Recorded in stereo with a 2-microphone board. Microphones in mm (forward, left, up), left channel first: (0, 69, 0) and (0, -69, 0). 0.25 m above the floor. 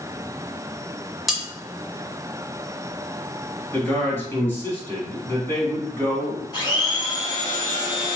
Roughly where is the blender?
Left.